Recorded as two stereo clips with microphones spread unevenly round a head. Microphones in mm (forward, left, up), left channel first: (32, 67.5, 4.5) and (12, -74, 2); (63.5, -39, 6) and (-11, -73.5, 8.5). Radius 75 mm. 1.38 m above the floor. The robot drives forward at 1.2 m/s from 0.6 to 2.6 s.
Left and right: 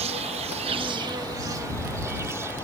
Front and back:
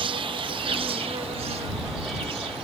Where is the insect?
150° right; by 2.6 s 170° right.